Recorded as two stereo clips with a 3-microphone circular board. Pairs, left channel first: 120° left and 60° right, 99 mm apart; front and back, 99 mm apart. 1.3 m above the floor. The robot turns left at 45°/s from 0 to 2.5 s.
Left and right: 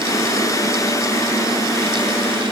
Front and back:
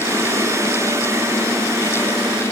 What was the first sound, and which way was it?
Only background noise.